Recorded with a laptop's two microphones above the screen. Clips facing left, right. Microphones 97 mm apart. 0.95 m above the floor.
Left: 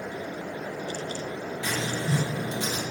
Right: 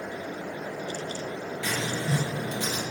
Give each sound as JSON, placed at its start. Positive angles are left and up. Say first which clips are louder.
{"t": 1.6, "sound": "writing", "louder": "even", "side_deg": 25, "distance_m": 0.8}